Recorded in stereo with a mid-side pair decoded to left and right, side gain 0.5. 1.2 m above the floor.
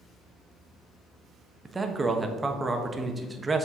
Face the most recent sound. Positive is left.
turn(degrees=-20)